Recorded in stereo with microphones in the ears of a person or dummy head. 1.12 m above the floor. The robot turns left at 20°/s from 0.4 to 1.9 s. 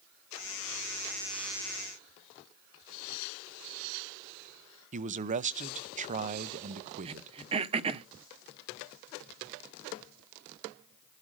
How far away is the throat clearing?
About 0.7 m.